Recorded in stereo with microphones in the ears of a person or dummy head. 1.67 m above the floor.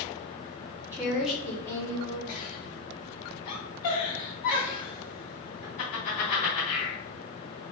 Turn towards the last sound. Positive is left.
turn(degrees=50)  # may be behind; listen again after turning